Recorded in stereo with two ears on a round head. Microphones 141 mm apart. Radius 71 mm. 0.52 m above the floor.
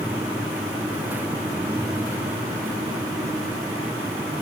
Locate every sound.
Only background noise.